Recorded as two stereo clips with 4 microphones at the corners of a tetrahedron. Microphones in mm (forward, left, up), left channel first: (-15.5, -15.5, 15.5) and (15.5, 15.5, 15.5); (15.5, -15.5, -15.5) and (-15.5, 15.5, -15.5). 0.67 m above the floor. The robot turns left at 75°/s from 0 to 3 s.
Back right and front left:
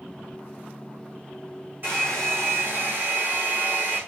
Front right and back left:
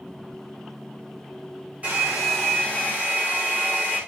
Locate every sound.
1.8 s a hair dryer: 85° left, 7.5 m; by 4.0 s straight ahead, 7.5 m